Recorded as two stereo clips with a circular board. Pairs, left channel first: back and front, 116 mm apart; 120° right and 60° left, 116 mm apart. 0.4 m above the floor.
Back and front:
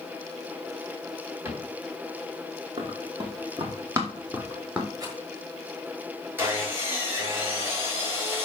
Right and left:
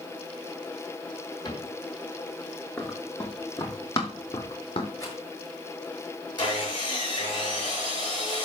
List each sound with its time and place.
1.4 s a cupboard door: 70° right, 3.5 m
2.8 s running footsteps: 45° right, 5 m; by 4.9 s 80° right, 4.5 m
5.0 s a rattle: 60° right, 7 m
6.4 s sawing: 70° right, 5.5 m